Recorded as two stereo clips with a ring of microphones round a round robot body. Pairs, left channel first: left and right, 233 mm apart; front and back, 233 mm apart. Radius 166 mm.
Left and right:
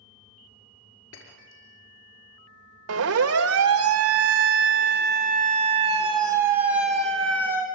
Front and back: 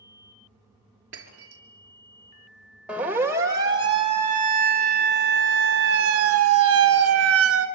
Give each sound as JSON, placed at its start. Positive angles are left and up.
{"t": 1.1, "sound": "breaking glass", "azimuth_deg": 145, "distance_m": 5.0}
{"t": 2.9, "sound": "a siren", "azimuth_deg": -95, "distance_m": 2.5}